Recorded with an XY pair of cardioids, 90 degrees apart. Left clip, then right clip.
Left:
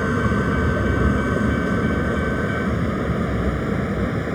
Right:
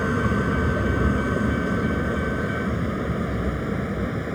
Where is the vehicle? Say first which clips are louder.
Left 2 dB; 15° left; by 4.3 s 30° left.